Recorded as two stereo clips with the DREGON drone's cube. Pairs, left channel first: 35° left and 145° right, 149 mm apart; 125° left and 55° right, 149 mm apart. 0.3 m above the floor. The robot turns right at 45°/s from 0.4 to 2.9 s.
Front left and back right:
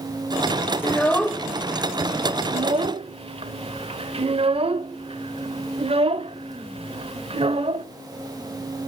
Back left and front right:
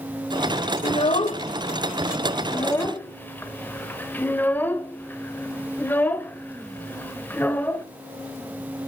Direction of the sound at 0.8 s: 100° left.